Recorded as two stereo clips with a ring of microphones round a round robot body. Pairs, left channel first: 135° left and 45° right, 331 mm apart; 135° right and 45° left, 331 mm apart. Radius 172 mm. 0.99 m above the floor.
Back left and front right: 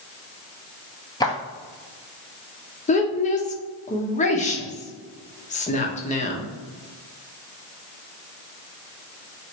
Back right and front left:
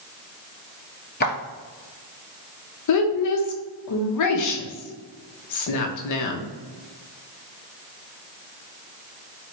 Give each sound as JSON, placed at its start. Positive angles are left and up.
{"t": 1.2, "sound": "footsteps", "azimuth_deg": -160, "distance_m": 1.0}
{"t": 2.9, "sound": "a woman speaking", "azimuth_deg": -160, "distance_m": 1.0}